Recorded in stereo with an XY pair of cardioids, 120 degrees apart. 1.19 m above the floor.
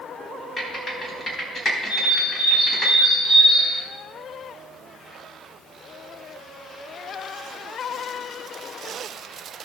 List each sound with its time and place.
0.6 s typing on a keyboard: 30° left, 4 m
1.9 s a bird: 40° left, 5 m